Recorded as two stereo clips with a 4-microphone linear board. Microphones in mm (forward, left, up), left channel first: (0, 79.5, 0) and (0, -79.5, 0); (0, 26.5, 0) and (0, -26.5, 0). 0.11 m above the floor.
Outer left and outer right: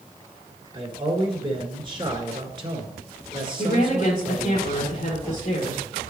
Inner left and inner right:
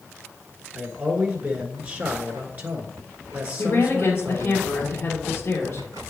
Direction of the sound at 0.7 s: 30° right (ahead or behind).